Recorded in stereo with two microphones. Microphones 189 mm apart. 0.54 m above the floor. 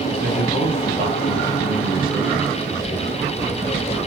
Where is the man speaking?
50° right (ahead or behind), 5 m.